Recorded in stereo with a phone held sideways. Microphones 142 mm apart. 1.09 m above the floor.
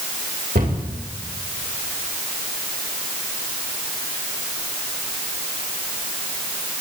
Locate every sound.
0.6 s a cupboard door: 80° right, 2.5 m